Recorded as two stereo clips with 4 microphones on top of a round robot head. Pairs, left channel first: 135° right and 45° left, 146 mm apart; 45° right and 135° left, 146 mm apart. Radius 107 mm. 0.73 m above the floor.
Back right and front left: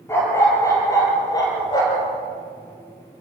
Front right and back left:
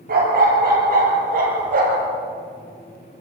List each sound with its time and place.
0.1 s a dog barking: 155° left, 6 m; by 2.1 s 165° left, 5 m